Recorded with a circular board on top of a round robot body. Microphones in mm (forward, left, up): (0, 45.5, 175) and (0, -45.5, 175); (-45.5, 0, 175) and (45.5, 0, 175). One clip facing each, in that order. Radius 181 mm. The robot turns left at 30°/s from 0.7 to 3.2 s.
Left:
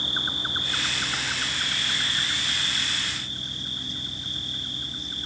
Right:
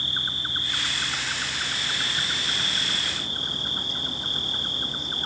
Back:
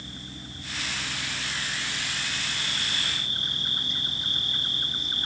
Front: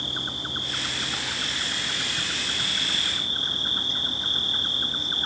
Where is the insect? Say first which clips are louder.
Left 2 dB, front 7 dB; 20° left; by 5.3 s 55° right.